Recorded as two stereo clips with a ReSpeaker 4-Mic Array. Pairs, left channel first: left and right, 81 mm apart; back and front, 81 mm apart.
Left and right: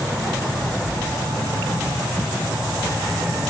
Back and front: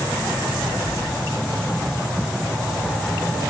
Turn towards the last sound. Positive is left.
turn(degrees=80)